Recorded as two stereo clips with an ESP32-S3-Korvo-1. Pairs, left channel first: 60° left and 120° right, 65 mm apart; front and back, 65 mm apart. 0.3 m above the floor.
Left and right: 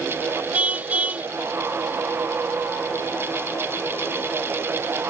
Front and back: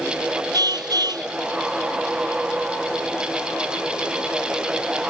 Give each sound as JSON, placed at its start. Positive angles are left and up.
{"t": 0.5, "sound": "a car horn", "azimuth_deg": 170}